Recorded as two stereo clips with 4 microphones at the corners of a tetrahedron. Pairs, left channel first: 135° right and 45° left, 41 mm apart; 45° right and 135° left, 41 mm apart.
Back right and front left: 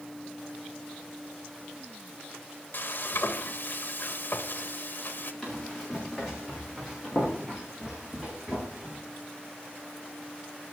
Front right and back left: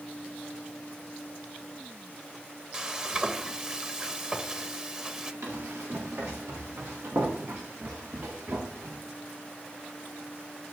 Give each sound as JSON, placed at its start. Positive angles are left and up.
{"t": 2.7, "sound": "frying", "azimuth_deg": -160, "distance_m": 1.3}
{"t": 5.4, "sound": "running footsteps", "azimuth_deg": 145, "distance_m": 7.5}